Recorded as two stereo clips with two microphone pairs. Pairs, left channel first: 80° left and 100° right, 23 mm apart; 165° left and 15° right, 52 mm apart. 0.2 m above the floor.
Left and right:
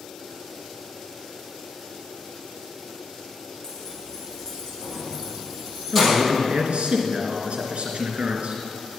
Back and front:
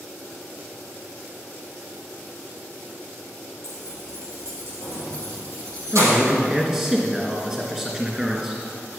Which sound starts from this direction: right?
A man speaking, at 5.9 s.